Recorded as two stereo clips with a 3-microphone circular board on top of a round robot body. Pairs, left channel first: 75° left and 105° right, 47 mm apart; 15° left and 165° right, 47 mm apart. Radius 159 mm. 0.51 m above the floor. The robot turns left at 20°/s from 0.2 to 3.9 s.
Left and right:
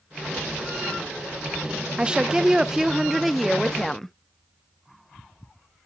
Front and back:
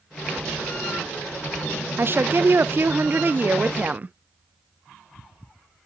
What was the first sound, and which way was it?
A woman speaking, 170° right.